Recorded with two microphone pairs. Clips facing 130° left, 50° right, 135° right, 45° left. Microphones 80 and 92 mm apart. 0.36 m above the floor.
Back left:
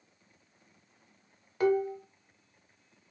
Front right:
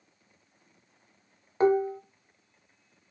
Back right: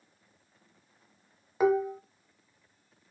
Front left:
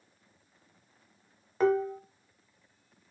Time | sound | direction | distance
1.6 | dishes clattering | 60° right | 0.5 m